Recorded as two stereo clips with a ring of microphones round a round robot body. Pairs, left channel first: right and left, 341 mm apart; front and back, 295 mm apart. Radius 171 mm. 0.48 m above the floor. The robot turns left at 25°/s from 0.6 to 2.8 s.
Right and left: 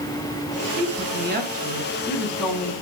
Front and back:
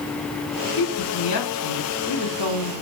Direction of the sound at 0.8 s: 40° left.